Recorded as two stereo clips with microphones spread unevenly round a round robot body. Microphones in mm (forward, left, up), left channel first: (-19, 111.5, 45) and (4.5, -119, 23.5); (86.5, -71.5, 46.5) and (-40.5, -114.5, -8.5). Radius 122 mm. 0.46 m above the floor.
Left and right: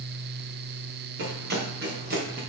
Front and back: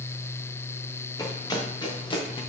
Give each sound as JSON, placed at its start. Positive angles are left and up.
{"t": 1.2, "sound": "running footsteps", "azimuth_deg": -40, "distance_m": 3.5}